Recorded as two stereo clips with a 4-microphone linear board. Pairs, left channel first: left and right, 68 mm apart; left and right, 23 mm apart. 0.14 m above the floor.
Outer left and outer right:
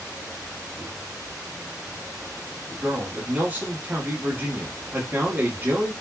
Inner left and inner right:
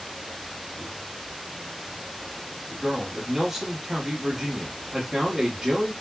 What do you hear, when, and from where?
2.8 s a man speaking: 25° right (ahead or behind), 1.1 m